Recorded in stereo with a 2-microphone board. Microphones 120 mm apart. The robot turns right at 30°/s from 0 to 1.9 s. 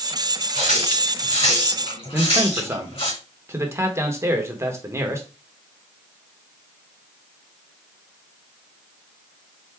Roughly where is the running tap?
Left.